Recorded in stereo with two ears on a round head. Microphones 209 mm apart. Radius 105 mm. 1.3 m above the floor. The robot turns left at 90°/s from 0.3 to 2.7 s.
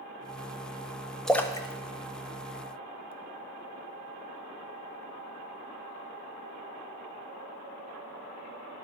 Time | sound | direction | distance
1.3 | a splash | centre (ahead or behind) | 0.5 m